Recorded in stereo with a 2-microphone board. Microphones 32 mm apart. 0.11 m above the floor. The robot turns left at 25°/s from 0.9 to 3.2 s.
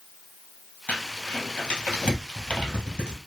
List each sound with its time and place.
0.9 s crumpling: 60° left (ahead or behind), 1.5 m; by 3.2 s 25° left (ahead or behind), 1.5 m